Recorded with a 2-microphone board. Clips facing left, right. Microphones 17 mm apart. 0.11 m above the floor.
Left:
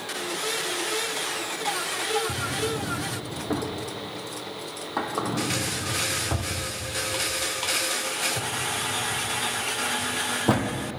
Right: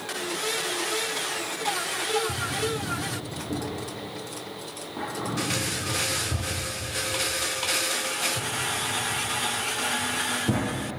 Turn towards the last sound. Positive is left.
turn(degrees=70)  # may be behind; listen again after turning